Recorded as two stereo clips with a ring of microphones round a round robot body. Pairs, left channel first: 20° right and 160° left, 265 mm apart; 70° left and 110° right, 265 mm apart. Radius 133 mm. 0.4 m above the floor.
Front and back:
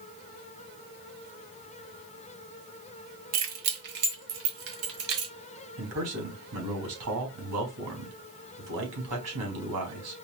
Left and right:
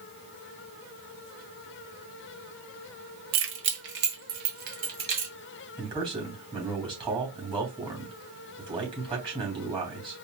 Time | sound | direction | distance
3.3 | keys jangling | 150° right | 1.2 m
5.8 | a man speaking | 175° left | 3 m